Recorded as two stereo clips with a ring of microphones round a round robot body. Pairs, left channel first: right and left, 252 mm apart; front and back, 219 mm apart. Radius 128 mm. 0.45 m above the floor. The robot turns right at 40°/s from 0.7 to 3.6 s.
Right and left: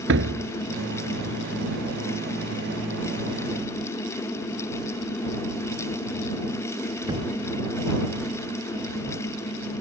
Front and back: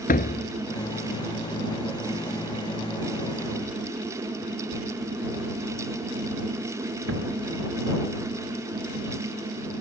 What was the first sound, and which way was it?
A door slam, 50° left.